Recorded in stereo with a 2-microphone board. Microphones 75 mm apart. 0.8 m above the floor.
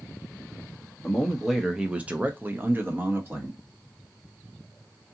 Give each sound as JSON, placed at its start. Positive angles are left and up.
{"t": 1.0, "sound": "a man speaking", "side_deg": 5, "distance_m": 0.7}